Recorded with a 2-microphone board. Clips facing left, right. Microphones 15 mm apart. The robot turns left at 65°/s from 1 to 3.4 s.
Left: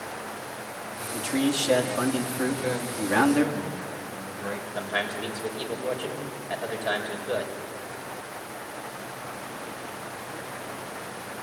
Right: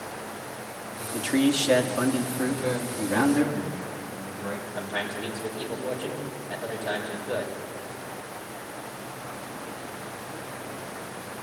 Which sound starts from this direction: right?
A man speaking, at 1.1 s.